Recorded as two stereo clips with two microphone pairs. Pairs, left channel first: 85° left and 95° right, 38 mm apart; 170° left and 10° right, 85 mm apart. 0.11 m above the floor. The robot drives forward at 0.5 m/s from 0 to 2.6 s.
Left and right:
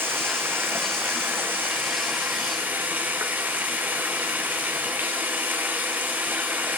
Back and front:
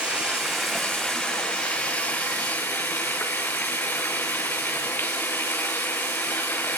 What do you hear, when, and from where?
0.0 s running water: 90° right, 1.8 m; by 6.8 s 125° right, 2.5 m